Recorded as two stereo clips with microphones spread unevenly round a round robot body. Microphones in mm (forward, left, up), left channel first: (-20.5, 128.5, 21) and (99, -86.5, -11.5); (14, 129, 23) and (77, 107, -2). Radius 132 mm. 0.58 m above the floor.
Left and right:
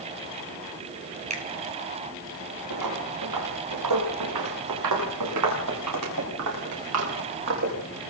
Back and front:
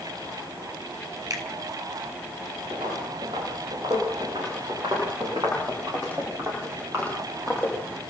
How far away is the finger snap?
About 4.5 m.